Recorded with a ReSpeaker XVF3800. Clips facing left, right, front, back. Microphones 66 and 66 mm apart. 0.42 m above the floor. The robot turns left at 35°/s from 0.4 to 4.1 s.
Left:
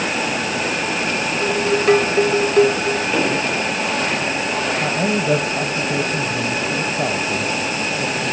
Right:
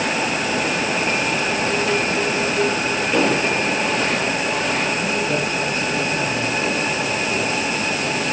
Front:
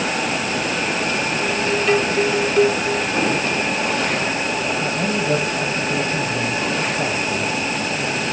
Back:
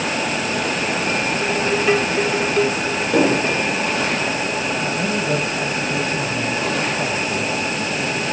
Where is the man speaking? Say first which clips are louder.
Left 2 dB, even; 80° left, 1.9 m.